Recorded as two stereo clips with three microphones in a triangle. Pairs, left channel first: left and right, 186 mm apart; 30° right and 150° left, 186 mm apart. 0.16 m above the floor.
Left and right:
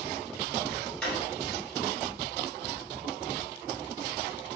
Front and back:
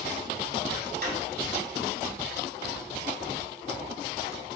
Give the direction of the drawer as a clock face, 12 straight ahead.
6 o'clock.